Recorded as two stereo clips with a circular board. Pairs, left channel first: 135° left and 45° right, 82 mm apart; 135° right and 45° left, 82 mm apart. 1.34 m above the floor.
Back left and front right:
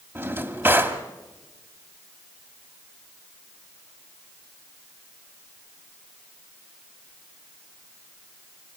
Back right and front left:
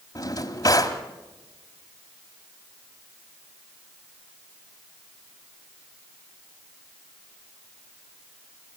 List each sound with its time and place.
0.1 s a drawer: 105° right, 1.8 m